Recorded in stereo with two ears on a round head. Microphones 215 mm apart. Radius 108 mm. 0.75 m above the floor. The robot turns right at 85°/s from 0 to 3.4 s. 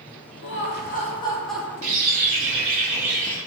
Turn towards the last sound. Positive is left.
turn(degrees=20)